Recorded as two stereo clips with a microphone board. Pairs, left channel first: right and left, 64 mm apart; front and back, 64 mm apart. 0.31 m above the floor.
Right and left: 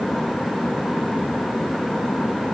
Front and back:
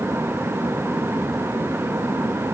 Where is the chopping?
I don't hear chopping.